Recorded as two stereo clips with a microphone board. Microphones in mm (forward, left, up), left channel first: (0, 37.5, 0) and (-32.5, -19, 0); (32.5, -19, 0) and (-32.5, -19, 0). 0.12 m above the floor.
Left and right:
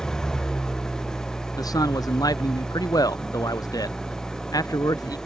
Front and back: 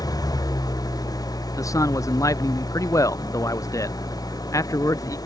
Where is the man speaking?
35° left.